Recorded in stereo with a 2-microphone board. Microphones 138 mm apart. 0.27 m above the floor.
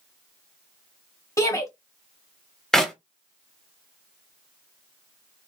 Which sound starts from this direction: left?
A shout, at 1.4 s.